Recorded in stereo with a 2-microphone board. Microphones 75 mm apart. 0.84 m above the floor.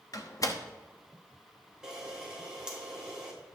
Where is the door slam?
50° left (ahead or behind), 0.9 m.